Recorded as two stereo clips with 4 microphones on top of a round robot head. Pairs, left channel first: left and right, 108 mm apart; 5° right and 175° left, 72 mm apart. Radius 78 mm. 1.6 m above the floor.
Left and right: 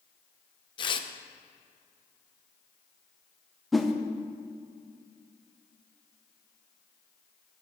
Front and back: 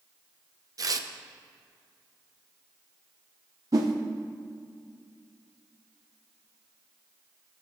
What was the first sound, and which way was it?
Tearing paper, 135° left.